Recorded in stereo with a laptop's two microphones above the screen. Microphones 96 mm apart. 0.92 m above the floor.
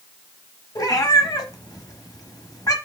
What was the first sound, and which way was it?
A cat meowing, 40° left (ahead or behind).